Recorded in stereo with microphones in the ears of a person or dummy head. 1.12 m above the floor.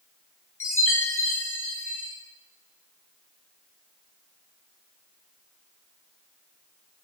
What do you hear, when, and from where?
0.6 s a chime: 15° left (ahead or behind), 1.1 m